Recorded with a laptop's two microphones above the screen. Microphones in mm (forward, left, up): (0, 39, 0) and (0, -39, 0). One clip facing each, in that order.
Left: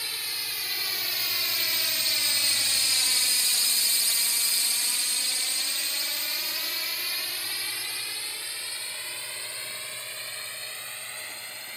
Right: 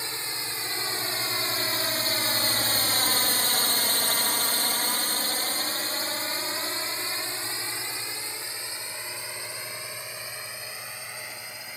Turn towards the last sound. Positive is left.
turn(degrees=-10)  # may be behind; listen again after turning